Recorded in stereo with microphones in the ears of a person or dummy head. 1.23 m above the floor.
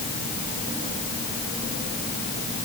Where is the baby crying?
No baby crying in this recording.